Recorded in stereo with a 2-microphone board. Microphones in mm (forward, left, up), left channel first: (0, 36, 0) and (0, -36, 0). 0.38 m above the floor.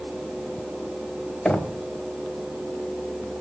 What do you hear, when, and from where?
1.4 s knocking: 5° left (ahead or behind), 1.4 m